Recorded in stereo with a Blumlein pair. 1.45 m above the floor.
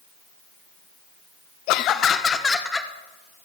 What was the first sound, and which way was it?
Laughter, 45° left.